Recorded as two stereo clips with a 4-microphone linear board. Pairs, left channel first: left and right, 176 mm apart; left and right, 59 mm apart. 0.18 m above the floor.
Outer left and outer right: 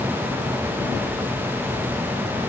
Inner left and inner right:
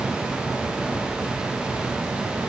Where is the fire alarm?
No fire alarm in this recording.